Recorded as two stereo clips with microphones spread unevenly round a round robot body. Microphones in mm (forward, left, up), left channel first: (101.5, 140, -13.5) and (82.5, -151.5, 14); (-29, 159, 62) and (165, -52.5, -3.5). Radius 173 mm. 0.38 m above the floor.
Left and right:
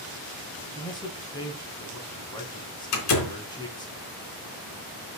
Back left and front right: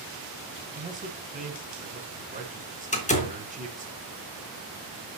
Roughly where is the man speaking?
Ahead.